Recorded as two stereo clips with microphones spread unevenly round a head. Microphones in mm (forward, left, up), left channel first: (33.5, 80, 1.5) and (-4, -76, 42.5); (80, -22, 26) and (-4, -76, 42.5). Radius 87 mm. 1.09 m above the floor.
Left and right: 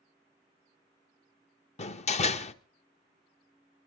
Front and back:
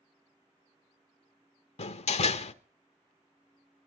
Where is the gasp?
No gasp in this recording.